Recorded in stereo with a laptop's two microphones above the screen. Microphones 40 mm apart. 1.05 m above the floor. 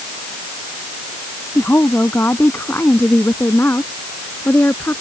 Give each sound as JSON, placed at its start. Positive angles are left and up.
{"t": 1.6, "sound": "a woman speaking", "side_deg": 90}